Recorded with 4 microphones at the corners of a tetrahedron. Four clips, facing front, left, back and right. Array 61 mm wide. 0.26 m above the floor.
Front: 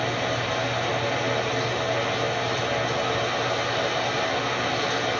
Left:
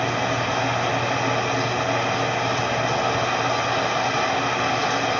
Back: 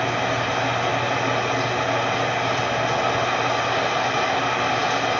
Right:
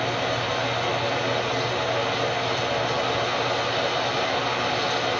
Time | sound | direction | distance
0.0 | running water | 150° left | 0.9 m